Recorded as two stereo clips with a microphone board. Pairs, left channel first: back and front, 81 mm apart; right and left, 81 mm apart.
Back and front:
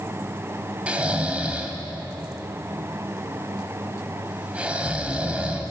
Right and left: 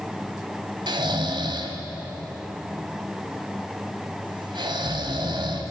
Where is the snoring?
75° left, 2 m.